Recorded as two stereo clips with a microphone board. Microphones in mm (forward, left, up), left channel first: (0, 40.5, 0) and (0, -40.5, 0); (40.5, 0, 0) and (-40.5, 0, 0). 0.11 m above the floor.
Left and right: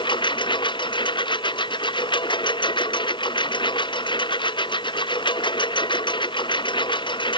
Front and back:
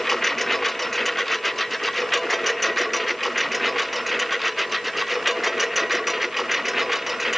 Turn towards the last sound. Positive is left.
turn(degrees=90)